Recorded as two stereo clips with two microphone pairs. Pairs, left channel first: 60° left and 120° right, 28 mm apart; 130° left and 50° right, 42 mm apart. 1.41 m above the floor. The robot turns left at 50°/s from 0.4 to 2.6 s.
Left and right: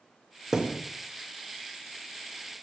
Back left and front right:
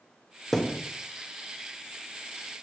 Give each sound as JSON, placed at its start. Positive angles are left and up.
{"t": 0.5, "sound": "a thud", "azimuth_deg": -165, "distance_m": 0.8}